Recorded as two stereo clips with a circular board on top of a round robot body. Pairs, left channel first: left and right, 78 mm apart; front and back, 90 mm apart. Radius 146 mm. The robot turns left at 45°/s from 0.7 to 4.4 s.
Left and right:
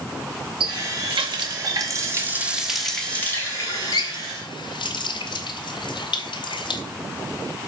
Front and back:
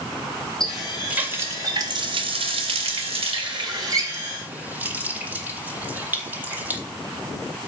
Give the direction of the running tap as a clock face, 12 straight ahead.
3 o'clock.